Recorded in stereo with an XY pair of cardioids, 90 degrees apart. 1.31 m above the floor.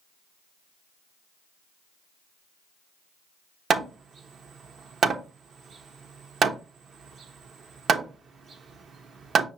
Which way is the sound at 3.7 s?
55° right.